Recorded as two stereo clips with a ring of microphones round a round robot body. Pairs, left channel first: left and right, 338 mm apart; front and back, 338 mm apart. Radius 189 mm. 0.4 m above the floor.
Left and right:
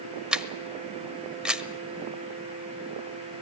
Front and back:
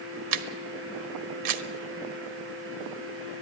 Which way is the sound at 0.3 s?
Straight behind.